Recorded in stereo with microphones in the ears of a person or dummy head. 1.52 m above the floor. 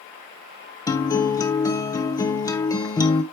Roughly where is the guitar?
Left.